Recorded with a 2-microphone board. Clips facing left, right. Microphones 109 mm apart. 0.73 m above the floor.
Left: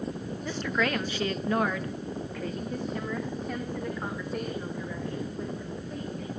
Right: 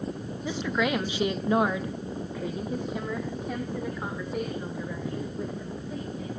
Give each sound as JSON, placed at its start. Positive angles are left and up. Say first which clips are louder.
{"t": 0.4, "sound": "a woman speaking", "louder": "right 2 dB", "side_deg": -10, "distance_m": 1.3}